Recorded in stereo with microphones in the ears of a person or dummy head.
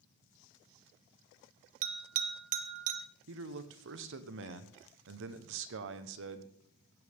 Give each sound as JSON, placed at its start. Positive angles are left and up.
{"t": 1.8, "sound": "a bell", "side_deg": -40, "distance_m": 0.9}
{"t": 3.3, "sound": "a man speaking", "side_deg": -60, "distance_m": 1.3}